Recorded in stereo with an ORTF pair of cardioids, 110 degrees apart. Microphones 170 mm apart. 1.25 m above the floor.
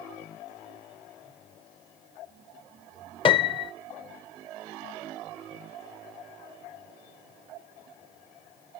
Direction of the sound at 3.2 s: 30° left.